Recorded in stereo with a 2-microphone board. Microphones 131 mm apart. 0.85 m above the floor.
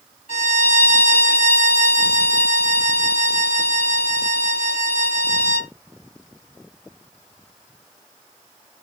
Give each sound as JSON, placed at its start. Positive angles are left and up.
{"t": 0.3, "sound": "a violin", "side_deg": 65, "distance_m": 1.8}